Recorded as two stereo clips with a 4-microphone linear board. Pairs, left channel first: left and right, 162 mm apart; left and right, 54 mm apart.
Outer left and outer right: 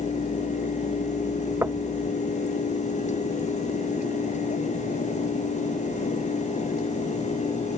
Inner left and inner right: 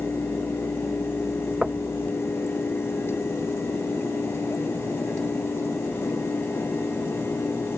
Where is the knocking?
15° right (ahead or behind).